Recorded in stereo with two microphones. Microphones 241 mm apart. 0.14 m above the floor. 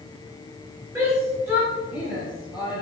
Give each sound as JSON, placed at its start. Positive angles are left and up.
{"t": 0.9, "sound": "a shout", "side_deg": -10, "distance_m": 3.0}